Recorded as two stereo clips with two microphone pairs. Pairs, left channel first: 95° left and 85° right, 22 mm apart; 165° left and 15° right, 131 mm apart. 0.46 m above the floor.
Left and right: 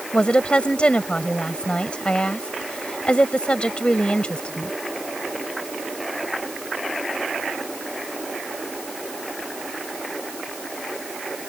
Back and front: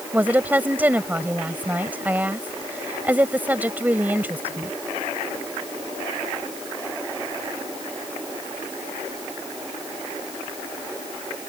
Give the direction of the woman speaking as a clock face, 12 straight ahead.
10 o'clock.